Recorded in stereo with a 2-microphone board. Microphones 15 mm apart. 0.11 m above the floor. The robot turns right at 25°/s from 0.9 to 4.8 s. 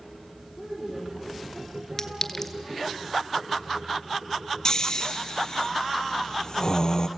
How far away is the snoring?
About 1.0 m.